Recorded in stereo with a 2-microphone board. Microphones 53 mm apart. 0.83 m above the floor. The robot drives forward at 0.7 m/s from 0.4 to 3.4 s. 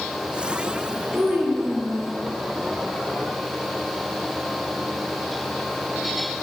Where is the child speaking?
15° right (ahead or behind), 1.9 m; by 2.1 s 10° right (ahead or behind), 2.5 m.